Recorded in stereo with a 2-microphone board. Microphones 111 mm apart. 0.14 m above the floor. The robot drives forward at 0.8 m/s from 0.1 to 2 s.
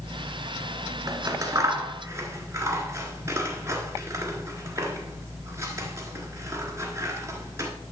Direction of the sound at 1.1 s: 35° right (ahead or behind).